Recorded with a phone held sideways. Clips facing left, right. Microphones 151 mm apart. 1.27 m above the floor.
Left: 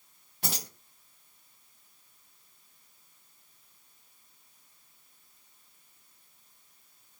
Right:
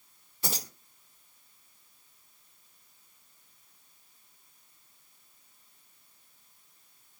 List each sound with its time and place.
0.4 s keys jangling: 70° left (ahead or behind), 1.4 m